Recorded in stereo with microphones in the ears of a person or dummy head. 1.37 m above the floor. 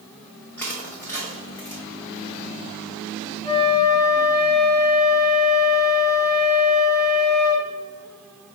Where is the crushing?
10° left (ahead or behind), 1.0 m.